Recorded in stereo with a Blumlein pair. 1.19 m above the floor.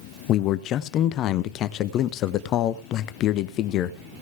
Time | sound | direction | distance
0.3 | a man speaking | 35° left | 0.7 m